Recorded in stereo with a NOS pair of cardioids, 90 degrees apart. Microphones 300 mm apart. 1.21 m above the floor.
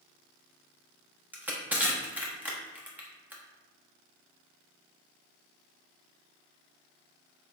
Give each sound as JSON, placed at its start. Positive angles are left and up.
{"t": 1.3, "sound": "crushing", "azimuth_deg": -5, "distance_m": 1.1}